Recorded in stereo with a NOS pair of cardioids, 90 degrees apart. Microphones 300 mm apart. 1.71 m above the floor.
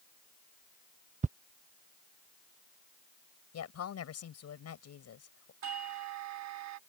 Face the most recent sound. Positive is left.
turn(degrees=-65)